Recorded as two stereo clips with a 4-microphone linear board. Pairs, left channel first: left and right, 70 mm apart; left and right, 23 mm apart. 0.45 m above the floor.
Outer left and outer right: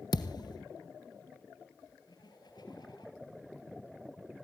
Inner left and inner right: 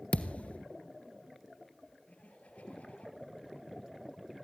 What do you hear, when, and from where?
0.1 s a thud: 70° left (ahead or behind), 1.3 m
2.1 s laughter: 85° left, 9 m